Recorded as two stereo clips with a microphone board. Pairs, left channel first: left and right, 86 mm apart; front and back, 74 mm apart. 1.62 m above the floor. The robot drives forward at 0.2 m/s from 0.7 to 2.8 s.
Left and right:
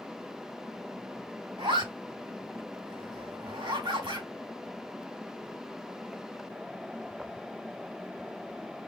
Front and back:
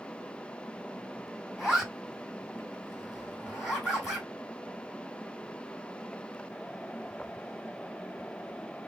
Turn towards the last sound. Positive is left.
turn(degrees=-90)